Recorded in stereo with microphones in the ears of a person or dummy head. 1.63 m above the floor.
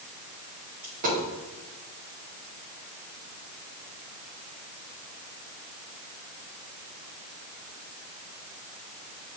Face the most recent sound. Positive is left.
turn(degrees=-40)  # may be behind; listen again after turning